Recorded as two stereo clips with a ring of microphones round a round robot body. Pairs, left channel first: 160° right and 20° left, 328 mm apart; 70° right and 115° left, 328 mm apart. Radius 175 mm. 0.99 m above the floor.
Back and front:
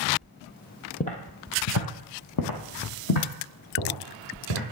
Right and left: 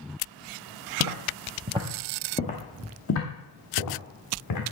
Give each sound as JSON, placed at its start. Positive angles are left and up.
{"t": 1.0, "sound": "footsteps", "azimuth_deg": 135, "distance_m": 1.5}